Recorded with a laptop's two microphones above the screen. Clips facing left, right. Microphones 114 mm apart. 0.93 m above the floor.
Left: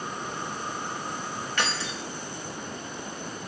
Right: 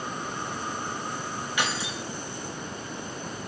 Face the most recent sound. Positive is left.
turn(degrees=-10)  # may be behind; listen again after turning